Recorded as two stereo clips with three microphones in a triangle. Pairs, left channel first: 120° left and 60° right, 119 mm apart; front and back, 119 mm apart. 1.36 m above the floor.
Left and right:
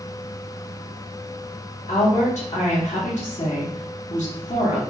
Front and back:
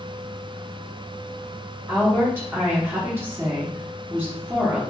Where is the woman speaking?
110° left, 1.7 m.